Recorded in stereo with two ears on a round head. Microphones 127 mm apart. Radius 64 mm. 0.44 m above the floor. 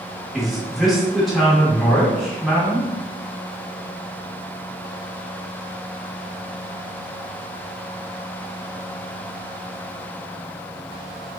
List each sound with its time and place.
0.3 s a man speaking: centre (ahead or behind), 0.9 m